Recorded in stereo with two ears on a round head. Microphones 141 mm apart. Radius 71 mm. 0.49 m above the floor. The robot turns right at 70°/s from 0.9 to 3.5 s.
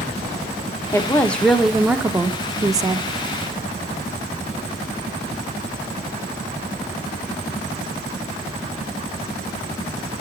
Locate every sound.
0.9 s a woman speaking: 15° left (ahead or behind), 0.7 m; by 3.1 s 20° right (ahead or behind), 0.7 m